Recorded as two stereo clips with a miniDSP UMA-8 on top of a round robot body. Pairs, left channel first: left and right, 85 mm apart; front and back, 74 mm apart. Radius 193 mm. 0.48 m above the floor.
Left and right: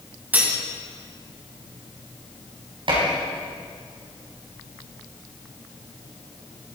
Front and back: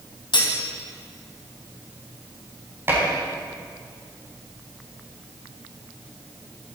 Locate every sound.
0.3 s cutlery clinking: 20° right, 3 m
2.9 s dishes clattering: 120° right, 4 m